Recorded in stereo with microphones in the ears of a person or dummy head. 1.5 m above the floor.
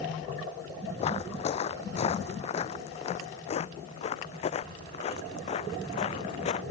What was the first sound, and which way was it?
Footsteps, 30° left (ahead or behind).